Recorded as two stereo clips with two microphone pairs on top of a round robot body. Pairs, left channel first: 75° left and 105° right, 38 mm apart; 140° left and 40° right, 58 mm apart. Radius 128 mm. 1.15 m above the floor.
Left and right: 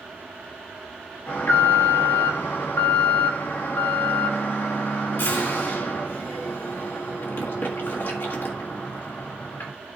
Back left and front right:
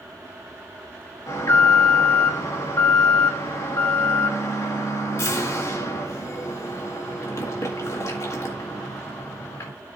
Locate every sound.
1.3 s an alarm: 100° left, 1.7 m